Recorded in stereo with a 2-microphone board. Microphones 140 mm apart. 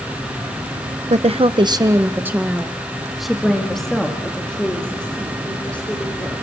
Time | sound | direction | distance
1.1 | a woman speaking | 55° right (ahead or behind) | 0.7 m